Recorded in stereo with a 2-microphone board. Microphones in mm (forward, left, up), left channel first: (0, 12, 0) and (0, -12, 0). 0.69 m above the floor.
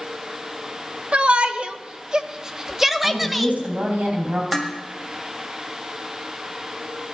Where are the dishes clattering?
15° right (ahead or behind), 2 m.